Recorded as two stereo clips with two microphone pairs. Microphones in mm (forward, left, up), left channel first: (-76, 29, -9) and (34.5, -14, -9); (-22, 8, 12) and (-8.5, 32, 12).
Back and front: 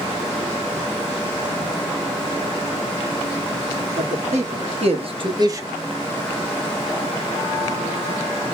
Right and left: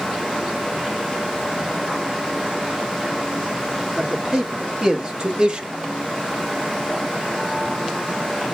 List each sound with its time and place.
4.0 s a man speaking: 10° right, 1.8 m; by 5.7 s 35° left, 0.7 m